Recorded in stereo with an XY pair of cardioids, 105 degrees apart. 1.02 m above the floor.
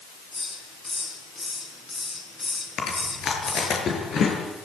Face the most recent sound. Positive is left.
turn(degrees=55)